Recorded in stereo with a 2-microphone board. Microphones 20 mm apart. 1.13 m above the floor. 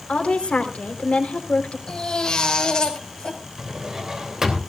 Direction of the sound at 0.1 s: 75° left (ahead or behind).